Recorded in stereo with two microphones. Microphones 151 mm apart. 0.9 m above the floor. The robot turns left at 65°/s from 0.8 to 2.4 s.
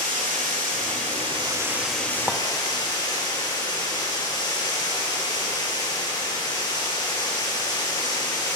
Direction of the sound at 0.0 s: 105° right.